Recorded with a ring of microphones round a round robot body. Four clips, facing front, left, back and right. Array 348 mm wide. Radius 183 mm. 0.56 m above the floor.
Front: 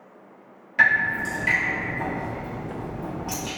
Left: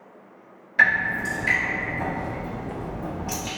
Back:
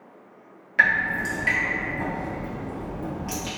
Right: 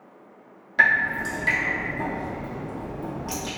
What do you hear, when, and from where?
0.8 s dripping: 120° right, 1.3 m